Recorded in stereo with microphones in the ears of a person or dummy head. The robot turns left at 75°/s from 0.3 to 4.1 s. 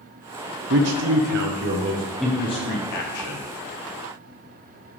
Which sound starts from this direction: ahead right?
A man speaking, at 0.7 s.